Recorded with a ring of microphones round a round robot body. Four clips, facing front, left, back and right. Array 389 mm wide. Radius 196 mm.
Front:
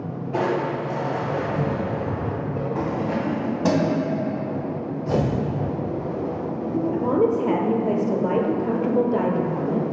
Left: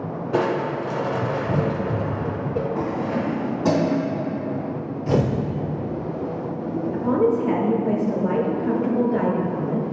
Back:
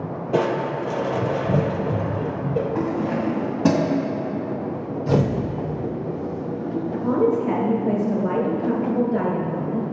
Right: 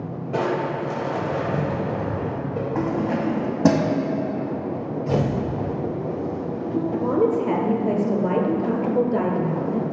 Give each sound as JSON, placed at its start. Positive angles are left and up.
{"t": 0.3, "sound": "crushing", "azimuth_deg": 155, "distance_m": 0.7}
{"t": 2.8, "sound": "keys jangling", "azimuth_deg": -100, "distance_m": 1.9}
{"t": 5.1, "sound": "tearing paper", "azimuth_deg": 150, "distance_m": 0.9}
{"t": 6.9, "sound": "a woman speaking", "azimuth_deg": -40, "distance_m": 1.0}